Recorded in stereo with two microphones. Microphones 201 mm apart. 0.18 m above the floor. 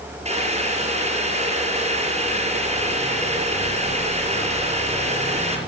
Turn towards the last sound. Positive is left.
turn(degrees=-35)  # may be behind; listen again after turning